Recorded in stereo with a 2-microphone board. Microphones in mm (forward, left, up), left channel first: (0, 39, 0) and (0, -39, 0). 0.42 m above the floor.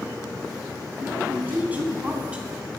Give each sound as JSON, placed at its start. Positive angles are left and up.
{"t": 1.0, "sound": "a woman speaking", "side_deg": -25, "distance_m": 4.0}